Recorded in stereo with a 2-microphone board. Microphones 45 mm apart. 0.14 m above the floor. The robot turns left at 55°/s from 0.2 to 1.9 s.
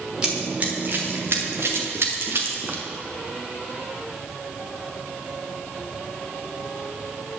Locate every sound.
0.2 s running footsteps: 15° right (ahead or behind), 3 m; by 2.8 s 40° right (ahead or behind), 2.5 m